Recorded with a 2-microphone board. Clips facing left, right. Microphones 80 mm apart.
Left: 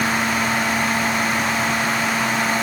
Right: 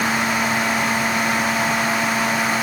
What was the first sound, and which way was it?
Only background noise.